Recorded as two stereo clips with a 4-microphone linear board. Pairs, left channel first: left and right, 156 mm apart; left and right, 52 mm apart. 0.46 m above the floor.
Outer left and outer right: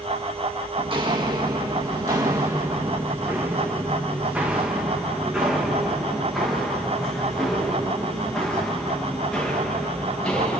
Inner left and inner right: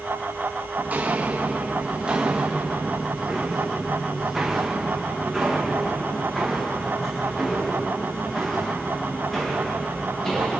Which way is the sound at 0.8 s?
35° right (ahead or behind).